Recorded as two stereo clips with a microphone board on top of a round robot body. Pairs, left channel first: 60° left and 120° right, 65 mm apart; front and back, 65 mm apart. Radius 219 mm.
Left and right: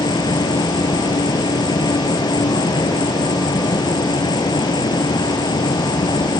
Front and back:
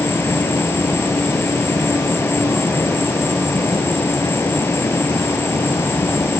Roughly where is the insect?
Ahead left.